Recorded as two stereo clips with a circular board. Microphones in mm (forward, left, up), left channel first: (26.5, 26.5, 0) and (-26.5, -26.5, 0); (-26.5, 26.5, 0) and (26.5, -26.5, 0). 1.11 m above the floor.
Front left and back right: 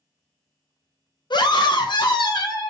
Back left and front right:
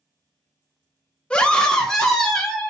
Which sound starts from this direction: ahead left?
A scream, at 1.3 s.